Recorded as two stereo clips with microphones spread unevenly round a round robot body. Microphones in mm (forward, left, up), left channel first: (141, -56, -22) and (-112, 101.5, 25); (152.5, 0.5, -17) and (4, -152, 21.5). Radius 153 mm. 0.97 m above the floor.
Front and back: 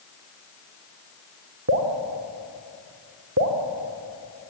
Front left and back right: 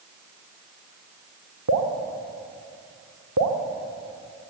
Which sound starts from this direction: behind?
Dripping, at 1.7 s.